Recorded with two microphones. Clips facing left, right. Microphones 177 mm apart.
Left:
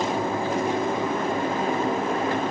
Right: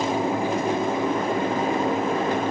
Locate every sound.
Only background noise.